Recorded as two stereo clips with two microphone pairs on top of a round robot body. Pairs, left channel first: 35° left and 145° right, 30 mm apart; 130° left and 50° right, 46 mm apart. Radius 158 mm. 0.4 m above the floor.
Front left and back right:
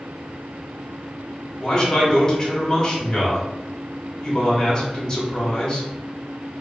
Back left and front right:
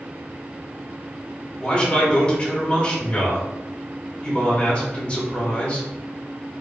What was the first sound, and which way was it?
A man speaking, 80° left.